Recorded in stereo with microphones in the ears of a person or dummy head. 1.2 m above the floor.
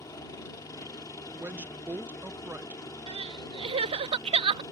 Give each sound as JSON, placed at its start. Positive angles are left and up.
{"t": 0.0, "sound": "a helicopter", "side_deg": 20}
{"t": 1.4, "sound": "a woman speaking", "side_deg": -10}
{"t": 3.1, "sound": "crying", "side_deg": -35}